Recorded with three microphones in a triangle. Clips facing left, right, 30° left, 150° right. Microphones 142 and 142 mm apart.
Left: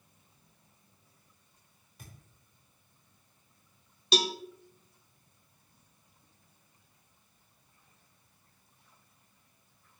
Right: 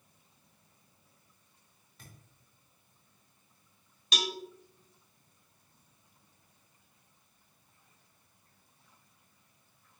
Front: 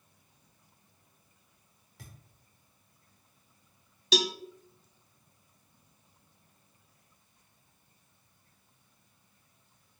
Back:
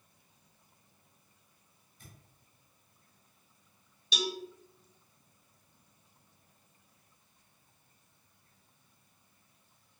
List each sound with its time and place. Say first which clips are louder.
2.0 s a thud: left 2 dB, front 4 dB; 10° left, 5 m
4.1 s a cowbell: left 7 dB, front 6 dB; 30° left, 0.6 m